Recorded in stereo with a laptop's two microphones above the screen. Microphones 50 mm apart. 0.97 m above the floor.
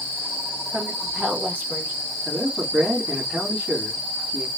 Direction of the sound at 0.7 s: 40° right (ahead or behind).